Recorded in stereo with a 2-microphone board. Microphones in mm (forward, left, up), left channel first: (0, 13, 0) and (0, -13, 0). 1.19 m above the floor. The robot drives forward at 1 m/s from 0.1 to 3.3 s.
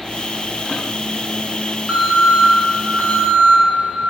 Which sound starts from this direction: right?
An alarm, at 1.9 s.